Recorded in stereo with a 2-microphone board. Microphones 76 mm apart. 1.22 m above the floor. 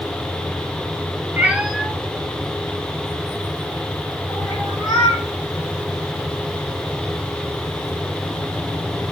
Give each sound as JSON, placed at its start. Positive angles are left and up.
{"t": 1.4, "sound": "a cat meowing", "side_deg": -25, "distance_m": 0.6}